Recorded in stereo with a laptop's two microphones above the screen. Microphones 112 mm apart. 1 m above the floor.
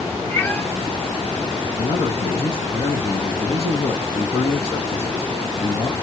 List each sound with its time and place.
0.3 s a cat meowing: 20° left (ahead or behind), 1.2 m
1.8 s a man speaking: 60° left (ahead or behind), 1.7 m